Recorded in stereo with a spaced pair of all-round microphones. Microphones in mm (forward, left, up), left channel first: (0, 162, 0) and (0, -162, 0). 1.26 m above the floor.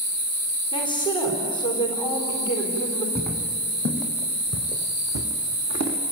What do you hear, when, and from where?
0.7 s a woman speaking: 15° left (ahead or behind), 4 m
3.1 s footsteps: 30° right (ahead or behind), 3 m; by 6.0 s 55° right (ahead or behind), 2.5 m